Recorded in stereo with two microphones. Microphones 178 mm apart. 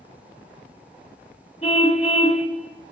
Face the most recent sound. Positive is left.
turn(degrees=35)  # may be behind; listen again after turning